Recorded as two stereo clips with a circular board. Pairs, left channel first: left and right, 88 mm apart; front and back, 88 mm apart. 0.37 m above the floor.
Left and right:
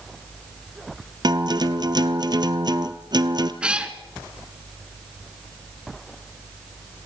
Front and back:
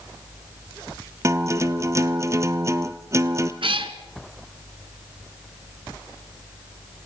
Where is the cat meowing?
170° right, 1.6 m.